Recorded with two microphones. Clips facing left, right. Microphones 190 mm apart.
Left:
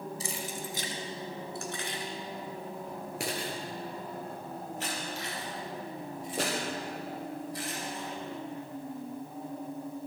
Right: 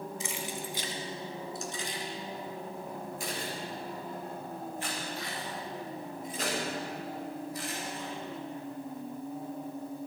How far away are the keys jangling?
About 1.8 m.